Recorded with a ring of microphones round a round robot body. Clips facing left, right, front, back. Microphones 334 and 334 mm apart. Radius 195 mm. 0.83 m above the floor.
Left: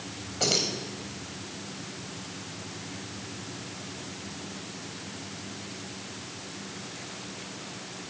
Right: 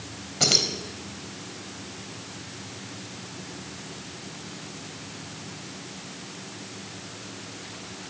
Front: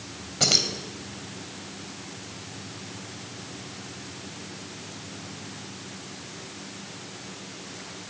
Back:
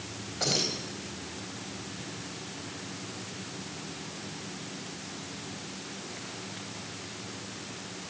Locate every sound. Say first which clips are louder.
0.4 s keys jangling: right 1 dB, front 2 dB; 35° right, 4.5 m